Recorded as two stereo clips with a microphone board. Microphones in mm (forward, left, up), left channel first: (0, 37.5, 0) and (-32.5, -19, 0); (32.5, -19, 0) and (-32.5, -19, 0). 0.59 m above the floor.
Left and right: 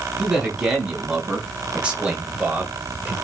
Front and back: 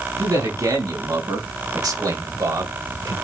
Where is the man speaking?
165° left, 5 m; by 3.1 s straight behind, 1.9 m.